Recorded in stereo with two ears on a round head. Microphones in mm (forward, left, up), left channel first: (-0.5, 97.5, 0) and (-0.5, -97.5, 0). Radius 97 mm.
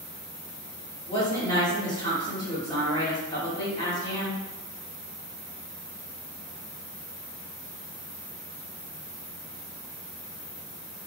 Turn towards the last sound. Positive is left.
turn(degrees=15)  # may be behind; listen again after turning